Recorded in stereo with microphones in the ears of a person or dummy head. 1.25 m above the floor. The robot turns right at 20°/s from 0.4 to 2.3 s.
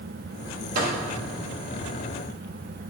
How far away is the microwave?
About 1.6 m.